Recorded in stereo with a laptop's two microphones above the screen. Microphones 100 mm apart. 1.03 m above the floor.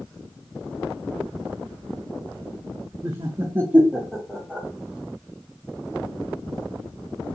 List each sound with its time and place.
3.0 s laughter: 35° right (ahead or behind), 0.7 m; by 4.7 s 10° left (ahead or behind), 1.0 m